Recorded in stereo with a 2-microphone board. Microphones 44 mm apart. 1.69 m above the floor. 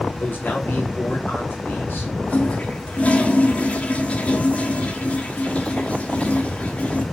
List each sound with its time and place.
0.2 s a man speaking: 55° left (ahead or behind), 3 m
2.3 s a toilet flushing: 35° left (ahead or behind), 1.4 m